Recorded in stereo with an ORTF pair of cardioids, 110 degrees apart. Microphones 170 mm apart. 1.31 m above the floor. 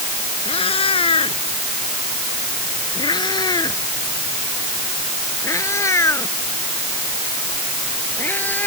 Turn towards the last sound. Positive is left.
turn(degrees=10)